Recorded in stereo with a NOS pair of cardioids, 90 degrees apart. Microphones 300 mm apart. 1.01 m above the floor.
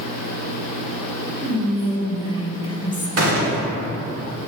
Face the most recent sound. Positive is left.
turn(degrees=-55)